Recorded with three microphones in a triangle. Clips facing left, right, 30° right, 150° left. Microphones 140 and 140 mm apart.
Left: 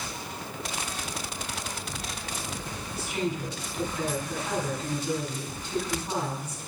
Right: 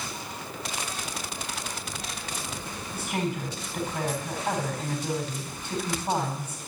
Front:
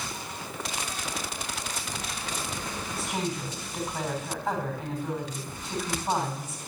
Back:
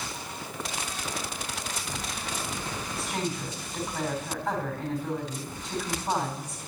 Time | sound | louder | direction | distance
2.9 | a woman speaking | even, front 1 dB | 120° right | 3.5 m